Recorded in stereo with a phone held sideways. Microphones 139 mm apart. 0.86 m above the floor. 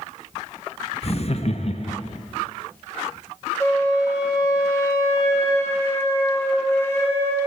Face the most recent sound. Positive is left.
turn(degrees=20)  # may be behind; listen again after turning